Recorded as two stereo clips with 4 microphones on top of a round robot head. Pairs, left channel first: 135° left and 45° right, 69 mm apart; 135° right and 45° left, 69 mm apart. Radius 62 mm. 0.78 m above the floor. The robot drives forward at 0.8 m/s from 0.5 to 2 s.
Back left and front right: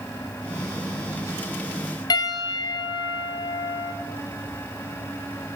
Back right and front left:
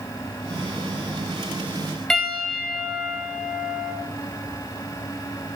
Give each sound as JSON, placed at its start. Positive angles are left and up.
{"t": 2.1, "sound": "a piano", "azimuth_deg": 145, "distance_m": 1.7}